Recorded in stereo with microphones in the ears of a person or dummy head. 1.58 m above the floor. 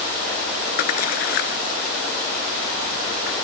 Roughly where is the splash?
Left.